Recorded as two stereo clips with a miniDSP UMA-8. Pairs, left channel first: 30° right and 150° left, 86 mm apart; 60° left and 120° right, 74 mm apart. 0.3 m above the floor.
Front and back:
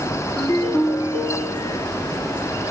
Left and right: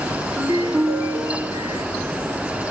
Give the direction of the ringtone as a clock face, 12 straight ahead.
3 o'clock.